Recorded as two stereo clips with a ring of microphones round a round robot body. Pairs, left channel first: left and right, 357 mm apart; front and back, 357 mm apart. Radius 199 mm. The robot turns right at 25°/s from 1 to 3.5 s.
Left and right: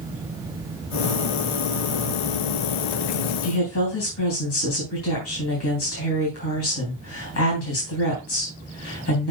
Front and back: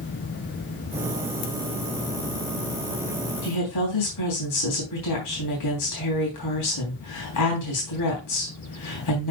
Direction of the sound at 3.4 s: 35° left.